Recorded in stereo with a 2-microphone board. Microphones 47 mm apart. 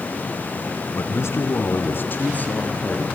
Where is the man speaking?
60° left (ahead or behind), 2.5 m; by 3.0 s 25° left (ahead or behind), 3.5 m.